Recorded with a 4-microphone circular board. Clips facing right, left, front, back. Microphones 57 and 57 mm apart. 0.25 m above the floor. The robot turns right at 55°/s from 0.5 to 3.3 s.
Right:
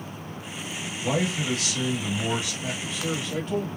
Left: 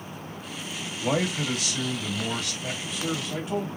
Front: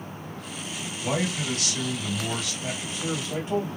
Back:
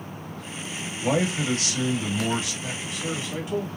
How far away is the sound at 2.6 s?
About 1.5 m.